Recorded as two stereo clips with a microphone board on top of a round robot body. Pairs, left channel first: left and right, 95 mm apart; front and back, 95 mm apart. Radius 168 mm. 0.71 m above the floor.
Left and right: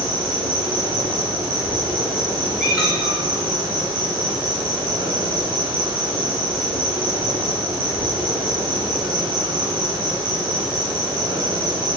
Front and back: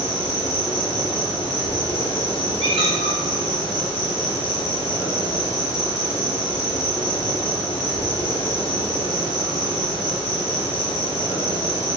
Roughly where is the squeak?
Behind.